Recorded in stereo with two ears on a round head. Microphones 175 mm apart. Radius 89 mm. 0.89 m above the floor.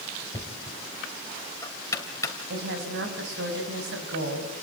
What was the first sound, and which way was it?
Knocking, 15° left (ahead or behind).